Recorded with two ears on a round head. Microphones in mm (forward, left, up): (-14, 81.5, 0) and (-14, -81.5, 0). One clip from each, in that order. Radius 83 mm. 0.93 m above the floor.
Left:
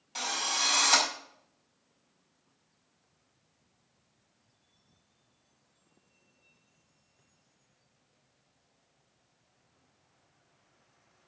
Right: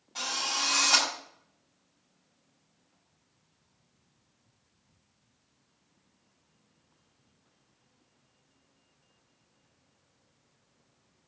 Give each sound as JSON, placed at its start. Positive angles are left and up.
{"t": 0.1, "sound": "a drill", "side_deg": 75, "distance_m": 6.0}